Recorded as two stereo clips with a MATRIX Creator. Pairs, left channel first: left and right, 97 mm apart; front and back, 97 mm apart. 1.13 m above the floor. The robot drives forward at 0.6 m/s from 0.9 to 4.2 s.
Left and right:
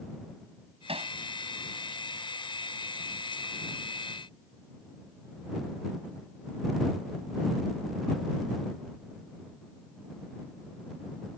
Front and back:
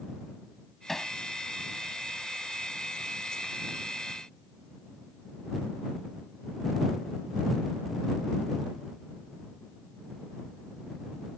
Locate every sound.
0.9 s hammering: 90° right